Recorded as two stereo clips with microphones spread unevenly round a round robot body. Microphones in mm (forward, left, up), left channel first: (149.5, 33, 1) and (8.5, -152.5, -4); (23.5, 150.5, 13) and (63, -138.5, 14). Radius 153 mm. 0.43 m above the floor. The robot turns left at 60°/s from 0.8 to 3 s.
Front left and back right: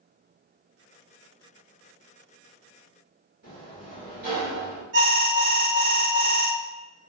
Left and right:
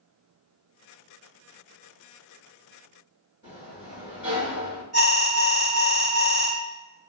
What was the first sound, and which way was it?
A sliding door, 160° right.